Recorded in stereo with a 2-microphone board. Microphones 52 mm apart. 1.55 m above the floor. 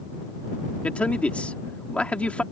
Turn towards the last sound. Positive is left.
turn(degrees=25)  # may be behind; listen again after turning